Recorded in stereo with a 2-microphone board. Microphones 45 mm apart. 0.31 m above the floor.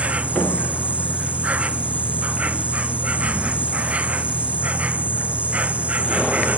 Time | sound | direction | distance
0.0 | an insect | 30° right (ahead or behind) | ?